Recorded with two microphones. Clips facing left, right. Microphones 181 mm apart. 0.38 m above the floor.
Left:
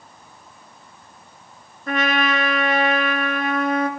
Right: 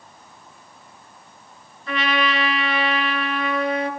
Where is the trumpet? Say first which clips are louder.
Left 2 dB; 45° left (ahead or behind), 4.5 m.